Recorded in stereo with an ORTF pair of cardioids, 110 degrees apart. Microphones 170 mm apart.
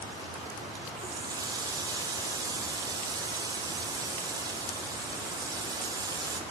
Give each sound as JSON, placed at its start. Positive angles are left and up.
{"t": 1.0, "sound": "a running tap", "azimuth_deg": -25, "distance_m": 3.0}